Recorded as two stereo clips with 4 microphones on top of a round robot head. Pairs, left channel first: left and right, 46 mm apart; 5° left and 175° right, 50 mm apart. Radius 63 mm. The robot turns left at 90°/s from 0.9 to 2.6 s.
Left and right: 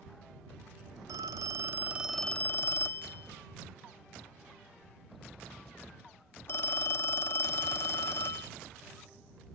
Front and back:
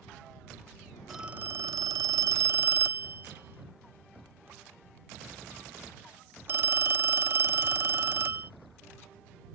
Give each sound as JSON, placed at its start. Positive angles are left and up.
{"t": 1.1, "sound": "a phone ringing", "azimuth_deg": -85}